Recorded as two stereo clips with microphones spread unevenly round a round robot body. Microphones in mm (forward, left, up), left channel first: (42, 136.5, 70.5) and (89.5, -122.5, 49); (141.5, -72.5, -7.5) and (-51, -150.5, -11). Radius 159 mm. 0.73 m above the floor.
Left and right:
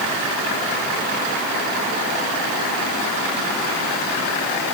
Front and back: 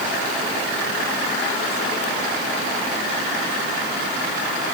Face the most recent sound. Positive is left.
No sound to turn to.